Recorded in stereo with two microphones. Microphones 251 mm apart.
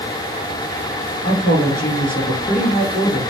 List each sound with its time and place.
1.2 s a woman speaking: 40° left (ahead or behind), 2 m